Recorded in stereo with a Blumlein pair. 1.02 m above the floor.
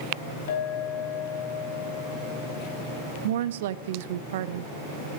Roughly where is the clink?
Ahead left.